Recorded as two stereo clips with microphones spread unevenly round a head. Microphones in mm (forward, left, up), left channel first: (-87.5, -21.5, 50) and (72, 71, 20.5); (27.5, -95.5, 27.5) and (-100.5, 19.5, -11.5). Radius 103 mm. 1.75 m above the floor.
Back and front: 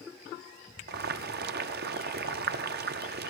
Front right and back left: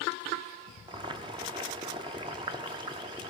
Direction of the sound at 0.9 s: 70° left.